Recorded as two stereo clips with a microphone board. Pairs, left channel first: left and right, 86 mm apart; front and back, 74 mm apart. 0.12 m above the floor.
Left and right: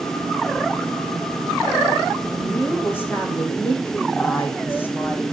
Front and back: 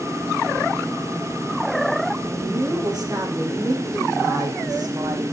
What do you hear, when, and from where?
2.3 s a woman speaking: 155° left, 7 m